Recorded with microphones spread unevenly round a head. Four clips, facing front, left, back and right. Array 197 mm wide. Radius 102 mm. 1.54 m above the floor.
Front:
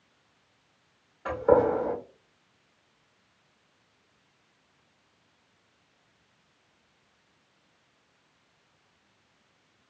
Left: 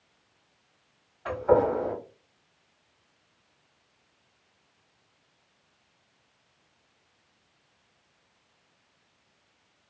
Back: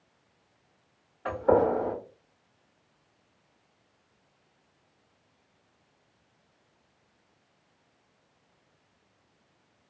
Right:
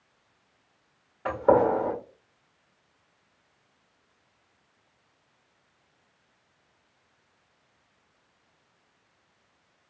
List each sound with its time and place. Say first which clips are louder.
1.2 s a gunshot: right 2 dB, front 1 dB; 100° right, 1.8 m